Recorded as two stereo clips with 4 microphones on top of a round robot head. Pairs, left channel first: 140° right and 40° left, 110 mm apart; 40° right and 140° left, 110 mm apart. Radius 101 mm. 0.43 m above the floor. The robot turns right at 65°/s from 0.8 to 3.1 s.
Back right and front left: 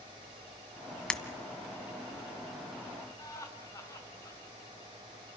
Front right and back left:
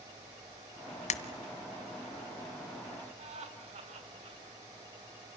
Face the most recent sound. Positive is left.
turn(degrees=160)